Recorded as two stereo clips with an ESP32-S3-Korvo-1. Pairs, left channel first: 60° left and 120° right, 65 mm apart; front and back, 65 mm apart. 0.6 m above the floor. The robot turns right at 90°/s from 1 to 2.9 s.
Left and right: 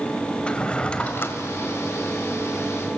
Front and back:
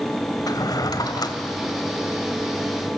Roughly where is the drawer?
Ahead.